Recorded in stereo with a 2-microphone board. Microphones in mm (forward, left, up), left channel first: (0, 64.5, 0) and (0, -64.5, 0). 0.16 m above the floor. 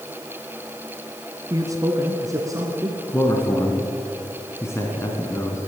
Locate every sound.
1.5 s a man speaking: 30° right (ahead or behind), 1.2 m; by 3.0 s 25° right (ahead or behind), 2 m
3.1 s a man speaking: 20° left (ahead or behind), 1.8 m